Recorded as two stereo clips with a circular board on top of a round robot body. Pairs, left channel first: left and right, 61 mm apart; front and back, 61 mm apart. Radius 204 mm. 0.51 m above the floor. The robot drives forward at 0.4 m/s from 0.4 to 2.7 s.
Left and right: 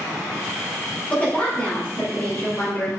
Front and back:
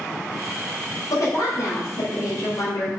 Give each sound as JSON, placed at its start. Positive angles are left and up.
{"t": 1.1, "sound": "a woman speaking", "azimuth_deg": 25, "distance_m": 4.0}